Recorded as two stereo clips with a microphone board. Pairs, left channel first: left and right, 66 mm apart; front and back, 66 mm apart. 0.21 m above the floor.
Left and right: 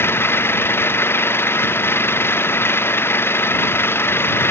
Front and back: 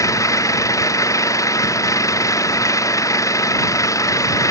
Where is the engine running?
35° left.